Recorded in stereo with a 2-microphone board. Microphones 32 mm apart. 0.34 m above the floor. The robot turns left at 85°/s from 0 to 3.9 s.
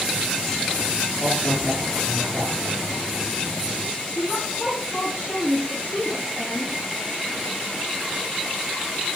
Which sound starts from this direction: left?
A woman speaking, at 4.2 s.